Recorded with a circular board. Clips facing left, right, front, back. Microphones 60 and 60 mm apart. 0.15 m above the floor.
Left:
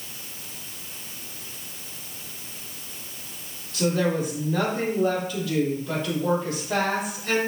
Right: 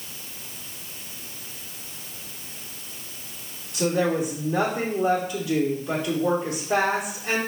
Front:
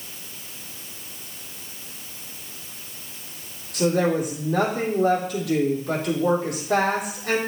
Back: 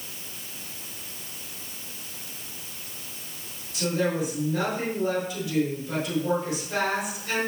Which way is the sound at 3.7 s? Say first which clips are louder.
Right 1 dB, front 5 dB; 15° right.